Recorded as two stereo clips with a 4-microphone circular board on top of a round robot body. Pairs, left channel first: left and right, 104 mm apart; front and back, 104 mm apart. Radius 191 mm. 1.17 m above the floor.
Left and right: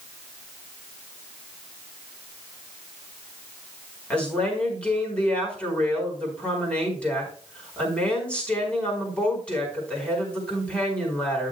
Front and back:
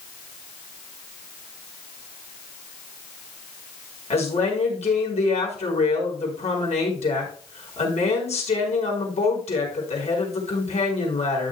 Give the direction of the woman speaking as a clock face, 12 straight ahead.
12 o'clock.